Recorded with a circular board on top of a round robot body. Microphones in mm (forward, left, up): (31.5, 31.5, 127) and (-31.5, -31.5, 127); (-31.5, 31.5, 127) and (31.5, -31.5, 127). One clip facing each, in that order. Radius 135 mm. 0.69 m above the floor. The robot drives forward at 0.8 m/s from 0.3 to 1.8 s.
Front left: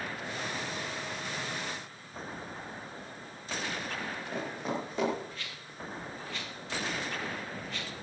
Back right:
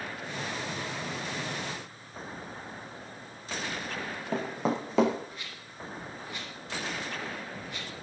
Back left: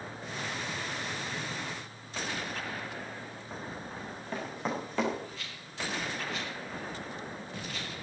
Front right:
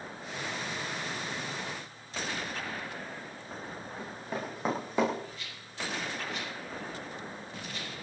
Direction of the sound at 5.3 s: 150° left.